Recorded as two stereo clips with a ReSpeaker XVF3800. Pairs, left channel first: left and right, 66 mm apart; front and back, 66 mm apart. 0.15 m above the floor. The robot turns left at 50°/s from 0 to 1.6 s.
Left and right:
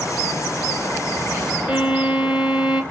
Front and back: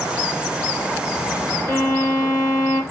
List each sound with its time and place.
1.7 s a violin: 5° right, 1.6 m